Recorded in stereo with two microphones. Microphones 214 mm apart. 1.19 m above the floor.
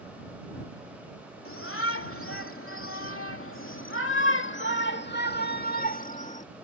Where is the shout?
80° left; by 6.5 s 35° left (ahead or behind).